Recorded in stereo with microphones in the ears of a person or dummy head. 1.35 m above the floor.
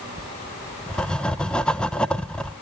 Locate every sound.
0.2 s writing: 5° left (ahead or behind), 0.7 m